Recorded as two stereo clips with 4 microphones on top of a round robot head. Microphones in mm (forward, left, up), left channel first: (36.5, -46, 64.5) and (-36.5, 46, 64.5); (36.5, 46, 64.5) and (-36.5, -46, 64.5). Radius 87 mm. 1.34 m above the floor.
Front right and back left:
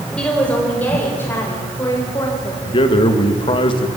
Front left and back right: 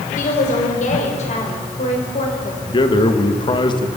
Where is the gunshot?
No gunshot in this recording.